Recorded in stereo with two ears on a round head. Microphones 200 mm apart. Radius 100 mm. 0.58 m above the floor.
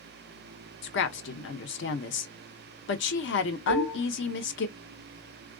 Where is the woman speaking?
55° left (ahead or behind), 0.9 m.